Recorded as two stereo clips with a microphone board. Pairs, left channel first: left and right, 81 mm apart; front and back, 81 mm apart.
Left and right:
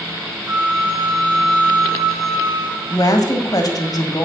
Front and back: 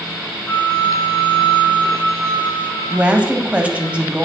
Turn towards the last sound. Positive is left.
turn(degrees=110)